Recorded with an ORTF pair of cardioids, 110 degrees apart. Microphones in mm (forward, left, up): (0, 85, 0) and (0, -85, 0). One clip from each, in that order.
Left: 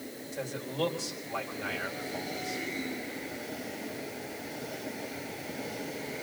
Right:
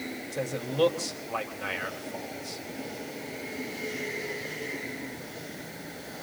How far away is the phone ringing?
I don't hear a phone ringing.